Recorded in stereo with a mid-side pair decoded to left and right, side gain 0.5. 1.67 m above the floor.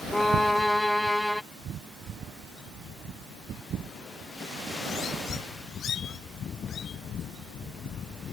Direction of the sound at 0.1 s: 5° left.